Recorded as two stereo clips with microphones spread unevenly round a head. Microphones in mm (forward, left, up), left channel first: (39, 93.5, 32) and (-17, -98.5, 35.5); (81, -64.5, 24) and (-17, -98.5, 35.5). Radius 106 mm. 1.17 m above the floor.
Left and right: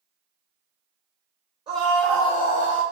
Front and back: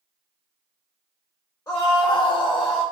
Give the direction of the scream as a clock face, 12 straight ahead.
1 o'clock.